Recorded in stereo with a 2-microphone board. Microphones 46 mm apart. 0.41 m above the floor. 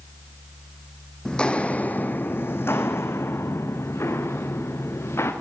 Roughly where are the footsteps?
Centre.